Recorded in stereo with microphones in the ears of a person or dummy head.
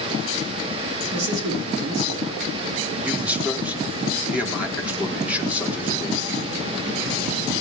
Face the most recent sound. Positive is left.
turn(degrees=-15)  # may be behind; listen again after turning